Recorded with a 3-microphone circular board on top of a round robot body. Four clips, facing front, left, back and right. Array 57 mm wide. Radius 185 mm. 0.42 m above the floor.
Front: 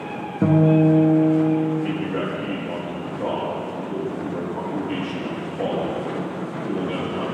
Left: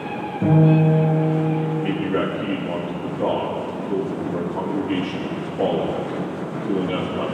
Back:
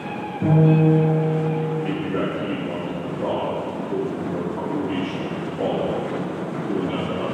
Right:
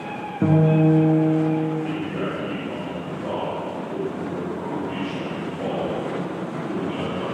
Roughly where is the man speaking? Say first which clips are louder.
Left 4 dB, back 1 dB; left.